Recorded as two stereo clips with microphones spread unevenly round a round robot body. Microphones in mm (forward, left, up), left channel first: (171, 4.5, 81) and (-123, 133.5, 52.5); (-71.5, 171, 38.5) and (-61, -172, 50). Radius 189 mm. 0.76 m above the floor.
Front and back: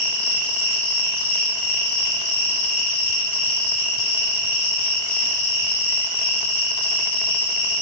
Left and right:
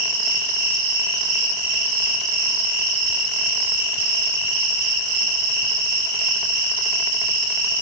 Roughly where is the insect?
Right.